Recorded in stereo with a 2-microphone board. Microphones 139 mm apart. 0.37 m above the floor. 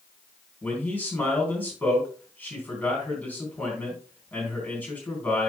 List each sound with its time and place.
0.6 s a man speaking: 10° left (ahead or behind), 4 m